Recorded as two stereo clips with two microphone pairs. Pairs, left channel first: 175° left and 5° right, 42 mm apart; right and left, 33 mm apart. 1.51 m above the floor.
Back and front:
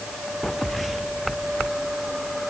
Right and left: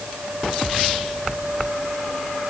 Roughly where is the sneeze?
No sneeze in this recording.